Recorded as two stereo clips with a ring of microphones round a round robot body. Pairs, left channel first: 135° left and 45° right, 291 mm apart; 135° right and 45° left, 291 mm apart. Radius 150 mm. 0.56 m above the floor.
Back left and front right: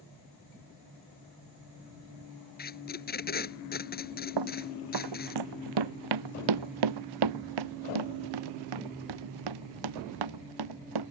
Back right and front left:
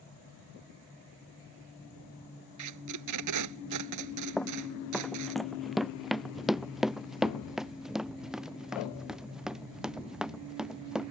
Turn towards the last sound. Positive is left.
turn(degrees=-40)